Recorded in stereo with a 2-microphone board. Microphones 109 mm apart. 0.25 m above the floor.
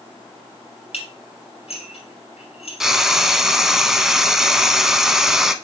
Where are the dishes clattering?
70° left (ahead or behind), 3.5 m.